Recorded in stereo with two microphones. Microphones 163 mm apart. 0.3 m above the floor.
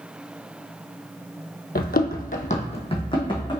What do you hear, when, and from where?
1.8 s running footsteps: 65° left (ahead or behind), 0.5 m; by 3.6 s 25° left (ahead or behind), 1.1 m